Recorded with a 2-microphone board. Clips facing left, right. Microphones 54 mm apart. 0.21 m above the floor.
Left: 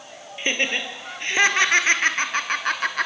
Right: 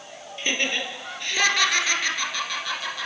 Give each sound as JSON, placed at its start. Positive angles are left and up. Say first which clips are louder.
{"t": 0.4, "sound": "laughter", "louder": "left 2 dB", "side_deg": 20, "distance_m": 4.0}